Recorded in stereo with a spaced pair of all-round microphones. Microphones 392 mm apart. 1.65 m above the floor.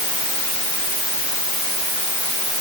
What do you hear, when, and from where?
Only background noise.